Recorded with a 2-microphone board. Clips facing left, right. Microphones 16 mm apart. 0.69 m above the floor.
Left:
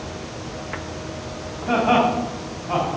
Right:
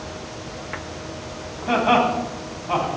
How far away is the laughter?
About 4 m.